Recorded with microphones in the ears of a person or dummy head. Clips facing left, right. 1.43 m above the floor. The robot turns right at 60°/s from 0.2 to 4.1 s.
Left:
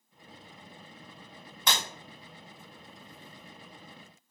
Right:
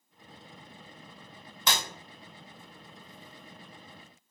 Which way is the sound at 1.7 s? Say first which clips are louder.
Right 1 dB; 70° right (ahead or behind).